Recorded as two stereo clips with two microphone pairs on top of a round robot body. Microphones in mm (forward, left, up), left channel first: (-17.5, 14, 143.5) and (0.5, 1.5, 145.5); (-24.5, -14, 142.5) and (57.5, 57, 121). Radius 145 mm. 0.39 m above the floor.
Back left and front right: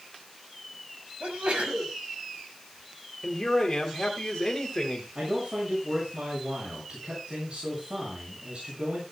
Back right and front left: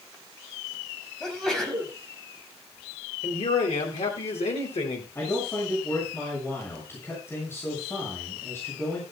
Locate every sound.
1.2 s a sneeze: 50° right, 5.5 m
3.2 s a man speaking: 150° right, 3 m
5.2 s a man speaking: 70° right, 7 m